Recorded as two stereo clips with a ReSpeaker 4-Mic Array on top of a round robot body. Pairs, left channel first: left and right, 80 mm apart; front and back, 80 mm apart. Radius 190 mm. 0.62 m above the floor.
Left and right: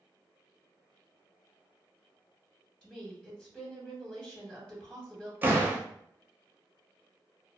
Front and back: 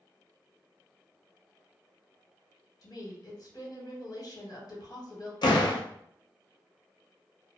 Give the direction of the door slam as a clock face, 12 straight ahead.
1 o'clock.